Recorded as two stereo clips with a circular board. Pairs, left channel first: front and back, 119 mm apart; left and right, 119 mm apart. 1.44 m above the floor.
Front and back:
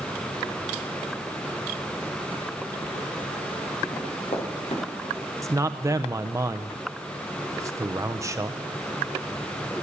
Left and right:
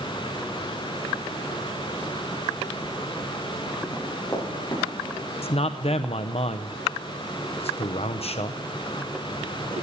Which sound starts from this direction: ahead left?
Running footsteps, at 3.9 s.